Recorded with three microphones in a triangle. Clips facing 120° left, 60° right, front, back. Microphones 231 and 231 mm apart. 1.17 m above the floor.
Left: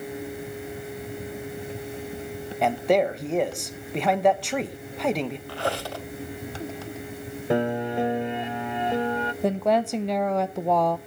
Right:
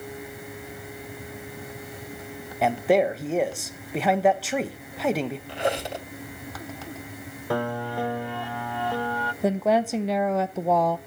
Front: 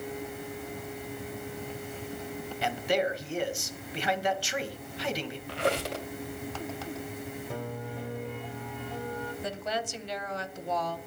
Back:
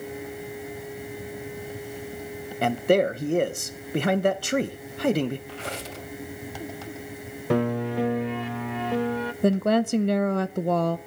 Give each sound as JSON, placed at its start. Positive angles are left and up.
{"t": 2.6, "sound": "a man speaking", "azimuth_deg": -145, "distance_m": 1.2}
{"t": 5.5, "sound": "a squeak", "azimuth_deg": 10, "distance_m": 2.0}
{"t": 7.5, "sound": "a piano", "azimuth_deg": -175, "distance_m": 0.5}
{"t": 9.4, "sound": "a woman speaking", "azimuth_deg": -150, "distance_m": 0.6}